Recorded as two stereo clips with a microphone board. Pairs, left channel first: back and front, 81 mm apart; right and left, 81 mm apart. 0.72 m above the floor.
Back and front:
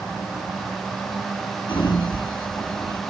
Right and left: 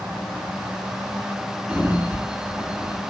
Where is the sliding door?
165° left, 2 m.